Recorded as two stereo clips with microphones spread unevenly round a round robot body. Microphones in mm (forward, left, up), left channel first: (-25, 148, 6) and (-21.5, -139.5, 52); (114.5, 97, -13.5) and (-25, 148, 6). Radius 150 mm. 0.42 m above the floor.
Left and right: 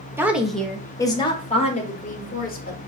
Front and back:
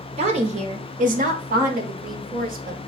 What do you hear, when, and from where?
0.2 s a woman speaking: straight behind, 1.0 m; by 2.8 s 140° left, 1.9 m